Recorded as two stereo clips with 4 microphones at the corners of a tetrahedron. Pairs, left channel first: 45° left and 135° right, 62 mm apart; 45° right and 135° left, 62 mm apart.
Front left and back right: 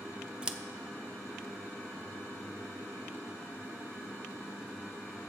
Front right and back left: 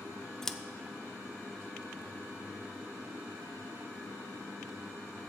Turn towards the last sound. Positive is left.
turn(degrees=-110)